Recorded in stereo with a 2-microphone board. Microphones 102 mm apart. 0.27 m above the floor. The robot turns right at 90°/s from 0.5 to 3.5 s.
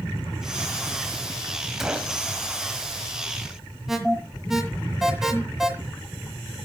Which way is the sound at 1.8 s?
175° right.